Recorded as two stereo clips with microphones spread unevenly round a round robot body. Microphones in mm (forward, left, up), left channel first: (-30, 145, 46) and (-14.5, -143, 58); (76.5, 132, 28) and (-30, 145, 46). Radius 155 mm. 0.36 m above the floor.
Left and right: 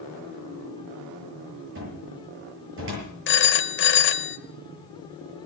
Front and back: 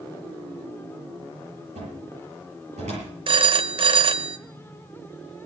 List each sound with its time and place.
1.8 s a cupboard door: 135° right, 8.5 m
3.3 s a phone ringing: 135° left, 1.2 m